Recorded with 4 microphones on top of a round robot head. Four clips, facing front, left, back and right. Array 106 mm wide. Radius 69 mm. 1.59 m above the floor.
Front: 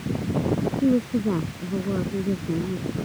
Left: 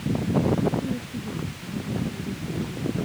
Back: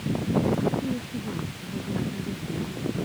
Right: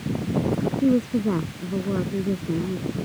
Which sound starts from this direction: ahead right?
A woman speaking, at 0.8 s.